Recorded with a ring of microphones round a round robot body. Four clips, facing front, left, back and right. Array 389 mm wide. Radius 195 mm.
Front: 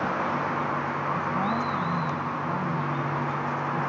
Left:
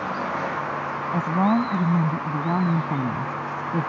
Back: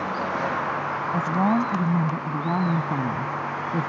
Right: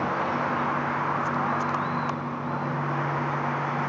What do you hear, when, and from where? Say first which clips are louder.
1.1 s a woman speaking: left 5 dB, back 8 dB; 120° left; by 3.9 s 125° left